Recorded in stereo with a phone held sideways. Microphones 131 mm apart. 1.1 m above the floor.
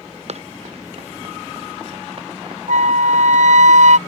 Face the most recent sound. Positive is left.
turn(degrees=-65)  # may be behind; listen again after turning